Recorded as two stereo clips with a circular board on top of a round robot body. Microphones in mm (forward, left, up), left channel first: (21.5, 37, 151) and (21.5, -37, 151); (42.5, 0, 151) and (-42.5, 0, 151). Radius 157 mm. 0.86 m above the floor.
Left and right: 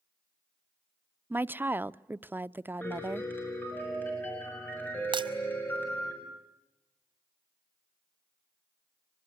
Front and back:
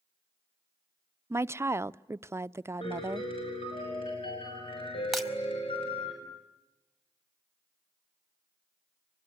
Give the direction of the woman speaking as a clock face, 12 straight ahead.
5 o'clock.